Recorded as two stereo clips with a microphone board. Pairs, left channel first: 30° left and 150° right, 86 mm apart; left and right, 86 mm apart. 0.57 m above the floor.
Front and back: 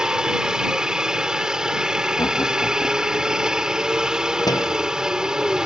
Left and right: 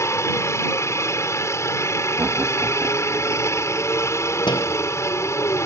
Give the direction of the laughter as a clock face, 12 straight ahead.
1 o'clock.